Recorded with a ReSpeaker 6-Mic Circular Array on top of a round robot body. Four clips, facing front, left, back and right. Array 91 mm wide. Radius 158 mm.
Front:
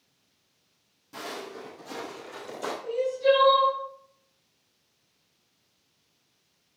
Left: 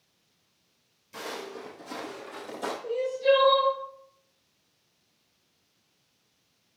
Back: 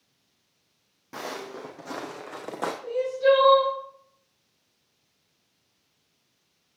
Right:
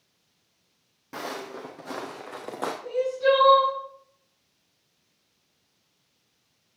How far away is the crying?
About 6.5 m.